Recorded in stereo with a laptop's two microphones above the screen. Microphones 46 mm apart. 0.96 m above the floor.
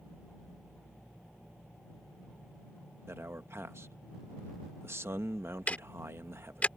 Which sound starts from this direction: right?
A man speaking, at 3.1 s.